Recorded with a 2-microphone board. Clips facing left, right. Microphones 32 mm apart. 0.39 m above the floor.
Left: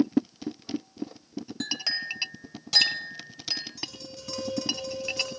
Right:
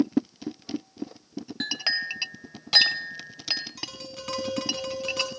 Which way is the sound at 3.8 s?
65° right (ahead or behind).